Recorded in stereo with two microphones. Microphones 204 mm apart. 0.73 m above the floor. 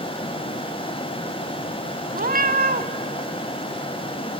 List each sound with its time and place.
2.1 s a cat meowing: 45° right (ahead or behind), 1.1 m